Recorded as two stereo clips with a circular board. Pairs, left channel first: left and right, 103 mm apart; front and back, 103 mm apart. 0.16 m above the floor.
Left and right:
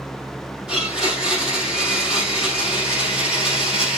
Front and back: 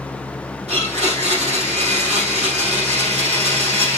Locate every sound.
0.7 s a blender: 175° right, 4.5 m